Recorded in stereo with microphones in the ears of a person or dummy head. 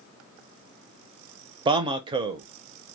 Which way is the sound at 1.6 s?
25° right (ahead or behind).